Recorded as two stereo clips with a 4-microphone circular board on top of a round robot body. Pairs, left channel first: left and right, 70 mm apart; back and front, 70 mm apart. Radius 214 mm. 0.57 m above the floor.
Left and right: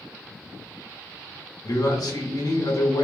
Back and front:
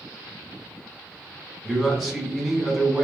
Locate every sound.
1.6 s a man speaking: 90° left, 1.1 m